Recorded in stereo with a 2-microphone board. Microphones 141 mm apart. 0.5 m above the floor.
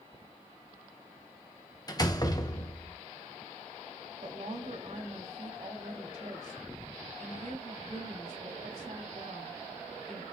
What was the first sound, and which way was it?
A door slam, 25° left (ahead or behind).